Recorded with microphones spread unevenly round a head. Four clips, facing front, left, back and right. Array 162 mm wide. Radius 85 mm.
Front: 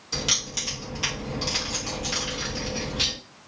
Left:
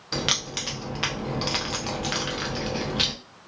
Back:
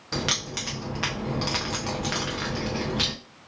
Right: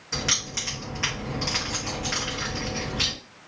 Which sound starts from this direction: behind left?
Keys jangling, at 0.1 s.